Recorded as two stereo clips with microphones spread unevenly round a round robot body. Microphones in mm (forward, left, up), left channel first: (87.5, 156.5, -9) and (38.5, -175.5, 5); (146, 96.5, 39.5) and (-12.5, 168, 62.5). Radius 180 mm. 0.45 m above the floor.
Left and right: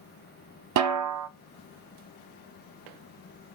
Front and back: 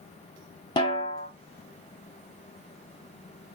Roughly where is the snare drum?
Right.